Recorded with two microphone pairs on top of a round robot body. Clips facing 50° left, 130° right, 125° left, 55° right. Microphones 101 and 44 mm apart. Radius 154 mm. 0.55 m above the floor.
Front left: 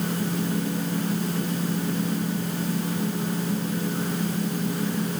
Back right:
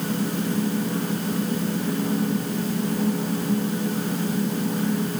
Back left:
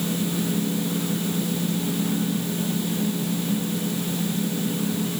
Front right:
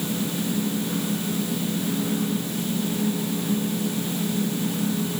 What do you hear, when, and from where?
Only background noise.